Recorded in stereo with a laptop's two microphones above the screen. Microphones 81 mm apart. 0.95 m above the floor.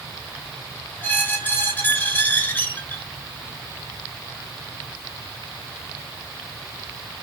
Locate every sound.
1.0 s a squeak: 25° left (ahead or behind), 0.5 m